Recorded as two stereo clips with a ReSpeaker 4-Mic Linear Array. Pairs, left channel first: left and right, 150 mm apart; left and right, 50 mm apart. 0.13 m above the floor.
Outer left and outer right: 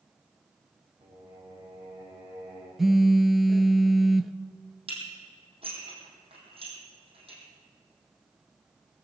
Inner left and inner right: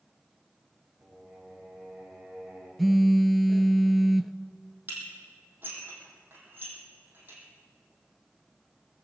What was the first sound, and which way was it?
Singing, 25° right (ahead or behind).